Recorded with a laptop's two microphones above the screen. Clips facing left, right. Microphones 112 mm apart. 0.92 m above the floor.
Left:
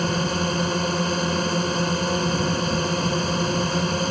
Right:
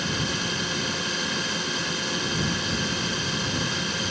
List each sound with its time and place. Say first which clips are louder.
0.0 s a drone: left 6 dB; 40° left (ahead or behind)